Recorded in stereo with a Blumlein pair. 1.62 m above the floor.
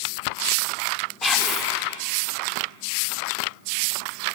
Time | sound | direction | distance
1.2 | whispering | 10° left | 2 m